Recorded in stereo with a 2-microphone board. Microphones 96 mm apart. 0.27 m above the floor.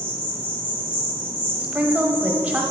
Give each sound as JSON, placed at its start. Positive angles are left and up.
{"t": 0.0, "sound": "an insect", "side_deg": 65, "distance_m": 3.5}
{"t": 1.6, "sound": "a woman speaking", "side_deg": -15, "distance_m": 1.2}